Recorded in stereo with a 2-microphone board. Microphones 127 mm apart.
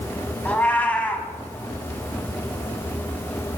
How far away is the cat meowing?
About 0.5 m.